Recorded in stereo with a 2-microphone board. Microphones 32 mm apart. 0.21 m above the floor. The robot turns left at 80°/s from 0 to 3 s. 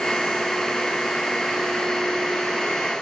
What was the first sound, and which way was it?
Only background noise.